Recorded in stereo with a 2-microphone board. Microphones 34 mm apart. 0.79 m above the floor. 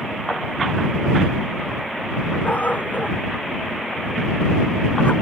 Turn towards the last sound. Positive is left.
turn(degrees=55)  # may be behind; listen again after turning